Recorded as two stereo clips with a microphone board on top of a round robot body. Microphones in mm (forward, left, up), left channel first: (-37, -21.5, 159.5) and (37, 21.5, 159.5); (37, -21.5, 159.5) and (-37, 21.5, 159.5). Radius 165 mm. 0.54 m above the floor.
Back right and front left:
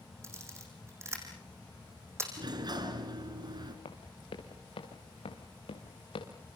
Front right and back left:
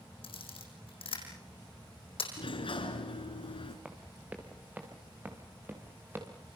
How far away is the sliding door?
About 3 m.